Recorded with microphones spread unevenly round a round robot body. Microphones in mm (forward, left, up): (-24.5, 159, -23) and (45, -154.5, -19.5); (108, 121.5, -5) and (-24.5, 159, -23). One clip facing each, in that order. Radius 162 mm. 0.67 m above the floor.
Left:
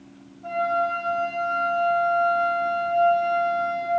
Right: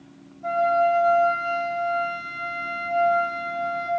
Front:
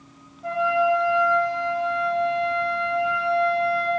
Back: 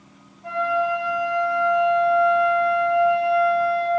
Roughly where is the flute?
Ahead right.